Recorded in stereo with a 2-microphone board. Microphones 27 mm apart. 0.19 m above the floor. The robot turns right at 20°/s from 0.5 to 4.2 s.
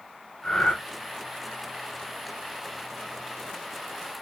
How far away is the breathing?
About 1.0 m.